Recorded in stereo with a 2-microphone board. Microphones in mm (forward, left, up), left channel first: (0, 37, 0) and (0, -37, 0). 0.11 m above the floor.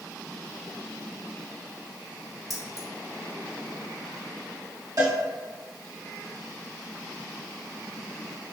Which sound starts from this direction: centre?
Keys jangling, at 2.5 s.